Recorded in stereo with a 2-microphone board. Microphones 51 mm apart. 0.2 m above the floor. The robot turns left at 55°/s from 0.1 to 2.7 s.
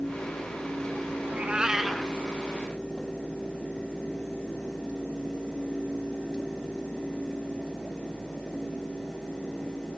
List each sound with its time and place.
1.2 s a cat meowing: 140° right, 1.1 m; by 2.1 s 170° left, 1.1 m